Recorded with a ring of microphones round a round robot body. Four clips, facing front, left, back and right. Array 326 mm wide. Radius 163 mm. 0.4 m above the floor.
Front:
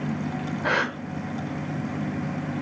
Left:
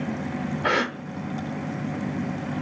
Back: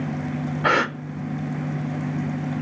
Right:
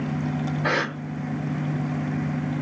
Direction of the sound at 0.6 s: 170° left.